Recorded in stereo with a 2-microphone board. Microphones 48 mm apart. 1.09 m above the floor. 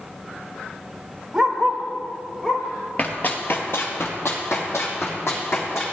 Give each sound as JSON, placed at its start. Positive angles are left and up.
{"t": 1.3, "sound": "a dog barking", "side_deg": -10, "distance_m": 1.2}
{"t": 3.0, "sound": "running footsteps", "side_deg": 35, "distance_m": 1.5}